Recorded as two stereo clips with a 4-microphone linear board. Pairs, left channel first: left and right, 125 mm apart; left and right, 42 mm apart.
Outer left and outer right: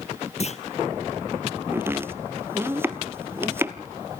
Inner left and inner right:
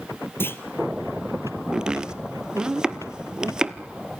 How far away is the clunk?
About 1.1 m.